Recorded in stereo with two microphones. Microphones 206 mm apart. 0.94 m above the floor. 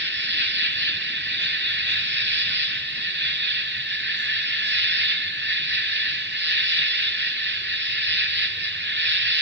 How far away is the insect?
About 1.7 m.